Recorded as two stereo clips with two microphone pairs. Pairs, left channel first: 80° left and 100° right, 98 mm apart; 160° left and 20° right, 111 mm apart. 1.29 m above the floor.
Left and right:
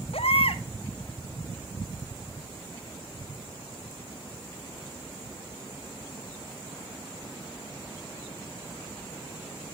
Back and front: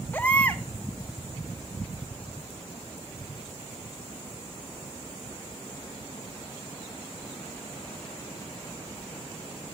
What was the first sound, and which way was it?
A baby crying, 90° left.